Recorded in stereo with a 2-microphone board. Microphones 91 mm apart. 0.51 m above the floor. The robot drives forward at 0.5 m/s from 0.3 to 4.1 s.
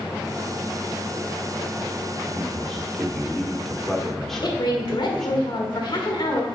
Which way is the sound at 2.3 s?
Centre (ahead or behind).